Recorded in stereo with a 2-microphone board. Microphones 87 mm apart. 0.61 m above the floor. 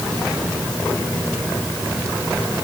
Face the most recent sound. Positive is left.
No sound to turn to.